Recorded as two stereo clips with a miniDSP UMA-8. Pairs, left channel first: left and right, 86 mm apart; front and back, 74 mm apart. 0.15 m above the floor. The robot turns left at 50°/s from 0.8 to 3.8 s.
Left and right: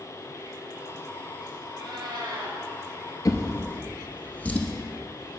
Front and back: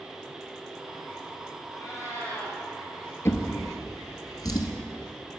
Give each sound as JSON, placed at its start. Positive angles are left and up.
{"t": 1.7, "sound": "a cat meowing", "azimuth_deg": -105, "distance_m": 2.5}
{"t": 3.2, "sound": "a drawer", "azimuth_deg": 45, "distance_m": 0.8}